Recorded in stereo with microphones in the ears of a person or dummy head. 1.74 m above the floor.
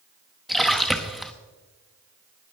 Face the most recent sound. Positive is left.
turn(degrees=-5)  # may be behind; listen again after turning